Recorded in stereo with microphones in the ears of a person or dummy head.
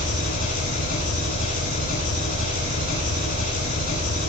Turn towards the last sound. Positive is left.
turn(degrees=45)  # may be behind; listen again after turning